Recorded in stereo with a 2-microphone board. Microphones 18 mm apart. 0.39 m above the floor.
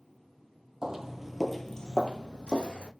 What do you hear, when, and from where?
0.8 s footsteps: 40° right (ahead or behind), 0.8 m; by 2.9 s 70° left (ahead or behind), 1.2 m